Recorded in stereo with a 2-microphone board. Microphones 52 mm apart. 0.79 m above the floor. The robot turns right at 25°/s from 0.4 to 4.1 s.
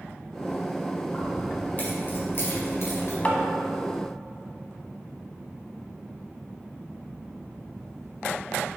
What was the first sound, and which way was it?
Keys jangling, 20° left (ahead or behind).